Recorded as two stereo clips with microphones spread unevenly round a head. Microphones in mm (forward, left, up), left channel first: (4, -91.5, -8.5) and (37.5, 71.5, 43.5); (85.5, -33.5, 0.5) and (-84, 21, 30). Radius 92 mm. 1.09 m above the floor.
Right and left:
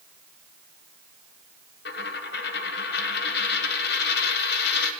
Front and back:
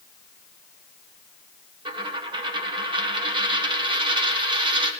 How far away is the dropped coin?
About 1.2 m.